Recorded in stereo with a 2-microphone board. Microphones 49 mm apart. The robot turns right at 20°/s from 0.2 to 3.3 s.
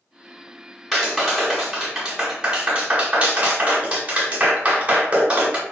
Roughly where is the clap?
Centre.